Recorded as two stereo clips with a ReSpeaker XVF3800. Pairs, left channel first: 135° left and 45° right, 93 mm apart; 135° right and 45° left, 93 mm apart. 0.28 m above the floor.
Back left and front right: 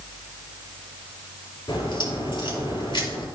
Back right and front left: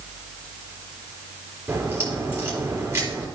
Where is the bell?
I don't hear a bell.